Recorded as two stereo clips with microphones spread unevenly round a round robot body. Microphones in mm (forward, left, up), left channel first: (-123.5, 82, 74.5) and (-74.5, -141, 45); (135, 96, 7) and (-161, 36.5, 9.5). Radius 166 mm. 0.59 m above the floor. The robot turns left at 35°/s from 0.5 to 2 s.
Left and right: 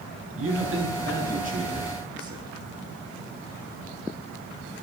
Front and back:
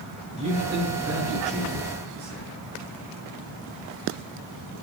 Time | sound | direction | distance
0.4 | a man speaking | 95° right | 9.5 m